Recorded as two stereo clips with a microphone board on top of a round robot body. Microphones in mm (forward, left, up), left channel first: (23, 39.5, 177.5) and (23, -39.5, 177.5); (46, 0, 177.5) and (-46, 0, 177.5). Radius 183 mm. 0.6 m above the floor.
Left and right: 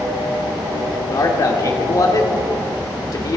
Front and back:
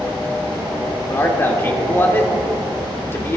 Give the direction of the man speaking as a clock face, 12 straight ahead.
10 o'clock.